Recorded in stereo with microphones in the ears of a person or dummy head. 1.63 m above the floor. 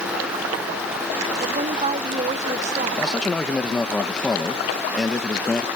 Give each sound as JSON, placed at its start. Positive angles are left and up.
{"t": 1.4, "sound": "a woman speaking", "side_deg": -35}
{"t": 3.0, "sound": "a man speaking", "side_deg": 0}